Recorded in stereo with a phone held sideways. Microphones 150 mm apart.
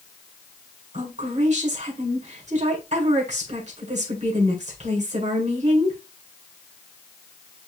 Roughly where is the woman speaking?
Right.